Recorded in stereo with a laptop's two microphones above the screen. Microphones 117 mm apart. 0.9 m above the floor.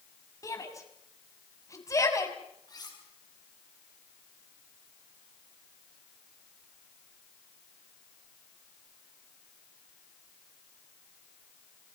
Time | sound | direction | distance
0.4 | a shout | 30° left (ahead or behind) | 5.5 m
2.7 | cutlery clinking | 35° left (ahead or behind) | 5 m